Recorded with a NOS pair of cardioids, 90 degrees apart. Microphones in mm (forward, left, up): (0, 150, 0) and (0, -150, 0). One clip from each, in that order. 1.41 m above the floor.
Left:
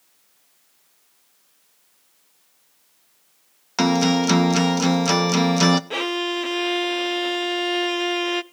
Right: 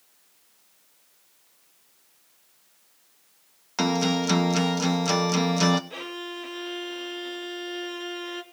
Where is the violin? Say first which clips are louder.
Left 11 dB; 55° left, 0.7 m.